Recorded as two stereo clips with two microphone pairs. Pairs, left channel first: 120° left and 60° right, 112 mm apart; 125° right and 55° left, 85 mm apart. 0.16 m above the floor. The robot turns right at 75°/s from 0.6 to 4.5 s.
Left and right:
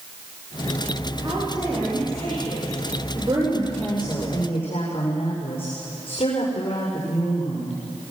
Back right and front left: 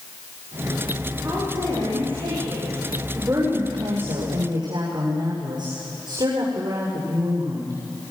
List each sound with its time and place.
1.2 s a woman speaking: 5° right, 9 m; by 2.8 s 115° left, 9 m
3.1 s a woman speaking: 15° right, 8 m; by 7.7 s 85° left, 8 m